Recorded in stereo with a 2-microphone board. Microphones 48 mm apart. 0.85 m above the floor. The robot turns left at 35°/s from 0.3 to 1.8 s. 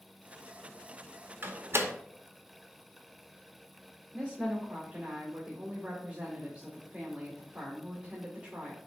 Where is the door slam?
40° right (ahead or behind), 0.9 m; by 1.9 s 55° right (ahead or behind), 0.9 m.